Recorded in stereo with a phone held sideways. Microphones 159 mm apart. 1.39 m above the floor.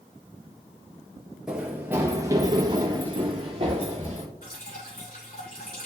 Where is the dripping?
75° left (ahead or behind), 3 m.